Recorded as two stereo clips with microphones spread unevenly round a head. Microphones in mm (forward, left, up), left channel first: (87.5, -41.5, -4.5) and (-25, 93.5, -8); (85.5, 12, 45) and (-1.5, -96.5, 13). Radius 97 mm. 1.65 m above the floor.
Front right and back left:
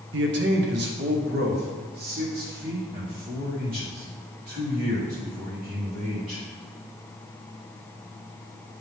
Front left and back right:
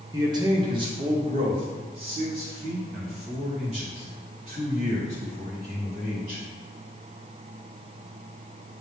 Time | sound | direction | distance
0.1 | a man speaking | 165° left | 0.8 m